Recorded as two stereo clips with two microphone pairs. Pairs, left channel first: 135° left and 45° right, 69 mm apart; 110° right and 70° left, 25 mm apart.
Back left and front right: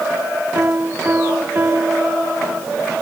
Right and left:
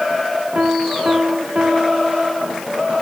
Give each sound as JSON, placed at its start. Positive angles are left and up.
{"t": 0.6, "sound": "a piano", "azimuth_deg": 15}